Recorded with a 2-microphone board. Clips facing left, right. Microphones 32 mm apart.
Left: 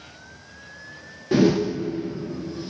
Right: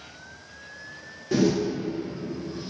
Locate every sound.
1.3 s a whoosh: 20° left (ahead or behind), 0.5 m